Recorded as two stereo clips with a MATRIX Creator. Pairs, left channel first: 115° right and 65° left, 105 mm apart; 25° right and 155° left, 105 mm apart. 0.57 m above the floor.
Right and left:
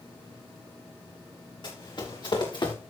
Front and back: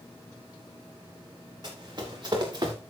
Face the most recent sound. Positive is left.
turn(degrees=-155)